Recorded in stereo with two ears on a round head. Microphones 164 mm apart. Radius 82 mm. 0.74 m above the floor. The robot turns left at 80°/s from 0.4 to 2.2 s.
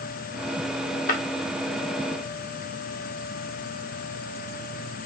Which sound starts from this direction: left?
Breaking glass, at 1.1 s.